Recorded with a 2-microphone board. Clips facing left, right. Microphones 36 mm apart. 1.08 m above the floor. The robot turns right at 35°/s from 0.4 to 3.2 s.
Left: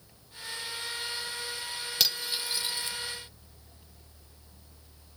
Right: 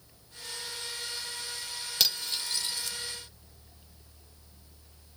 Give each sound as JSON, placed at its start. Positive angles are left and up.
{"t": 2.0, "sound": "cutlery clinking", "side_deg": 0, "distance_m": 0.7}